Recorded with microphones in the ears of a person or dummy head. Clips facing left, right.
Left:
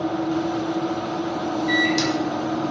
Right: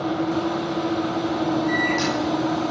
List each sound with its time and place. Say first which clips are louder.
1.7 s a microwave: left 1 dB; 75° left (ahead or behind), 6 m